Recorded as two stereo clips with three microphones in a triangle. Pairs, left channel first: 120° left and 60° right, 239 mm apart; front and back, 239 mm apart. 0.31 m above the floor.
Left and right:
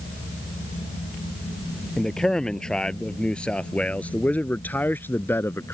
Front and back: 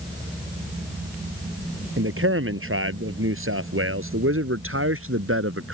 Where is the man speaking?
150° right; by 5.8 s 160° right.